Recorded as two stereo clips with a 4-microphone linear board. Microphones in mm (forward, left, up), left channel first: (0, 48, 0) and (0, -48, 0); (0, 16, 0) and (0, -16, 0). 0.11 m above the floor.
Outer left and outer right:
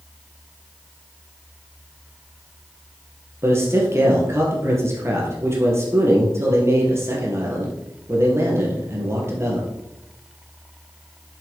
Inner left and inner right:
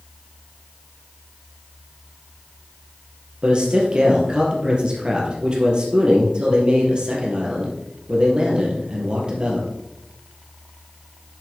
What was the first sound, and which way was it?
A man speaking, 30° right (ahead or behind).